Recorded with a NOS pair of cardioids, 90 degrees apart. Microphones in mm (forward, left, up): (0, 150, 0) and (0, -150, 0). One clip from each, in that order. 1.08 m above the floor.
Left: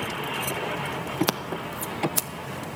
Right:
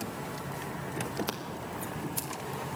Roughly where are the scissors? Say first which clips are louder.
Left 8 dB; ahead left.